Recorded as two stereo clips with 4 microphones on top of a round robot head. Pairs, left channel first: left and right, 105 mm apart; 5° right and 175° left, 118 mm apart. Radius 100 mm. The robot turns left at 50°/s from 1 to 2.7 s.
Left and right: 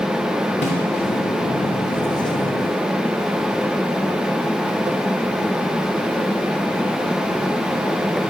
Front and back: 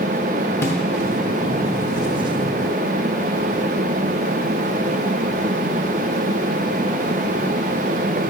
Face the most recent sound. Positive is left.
turn(degrees=-30)